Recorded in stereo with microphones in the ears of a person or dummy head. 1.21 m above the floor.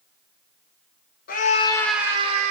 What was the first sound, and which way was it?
A scream, 45° left (ahead or behind).